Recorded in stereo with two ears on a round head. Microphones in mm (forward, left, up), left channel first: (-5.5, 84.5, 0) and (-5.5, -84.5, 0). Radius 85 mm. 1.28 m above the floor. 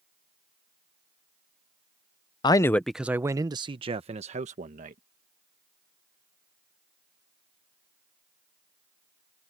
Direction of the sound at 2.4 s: 25° left (ahead or behind).